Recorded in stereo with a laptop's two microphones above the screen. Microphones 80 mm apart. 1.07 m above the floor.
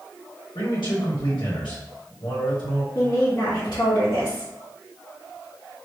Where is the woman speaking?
40° left (ahead or behind), 1.4 m.